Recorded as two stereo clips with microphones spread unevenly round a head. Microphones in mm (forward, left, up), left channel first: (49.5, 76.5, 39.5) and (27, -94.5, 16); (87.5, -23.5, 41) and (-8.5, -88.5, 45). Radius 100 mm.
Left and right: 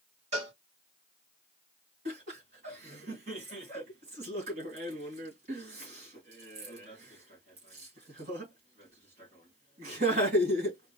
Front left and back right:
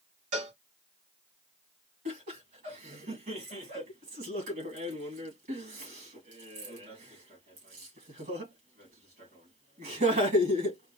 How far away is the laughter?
About 2.5 m.